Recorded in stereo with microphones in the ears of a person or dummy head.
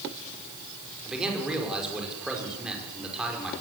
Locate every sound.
1.1 s a man speaking: centre (ahead or behind), 5.5 m